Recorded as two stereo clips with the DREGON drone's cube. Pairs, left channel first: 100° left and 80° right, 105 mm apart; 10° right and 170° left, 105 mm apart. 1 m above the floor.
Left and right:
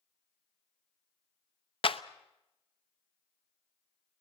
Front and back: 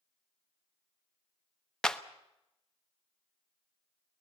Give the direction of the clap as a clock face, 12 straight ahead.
10 o'clock.